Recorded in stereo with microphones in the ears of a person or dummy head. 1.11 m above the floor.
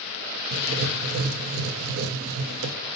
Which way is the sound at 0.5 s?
70° right (ahead or behind).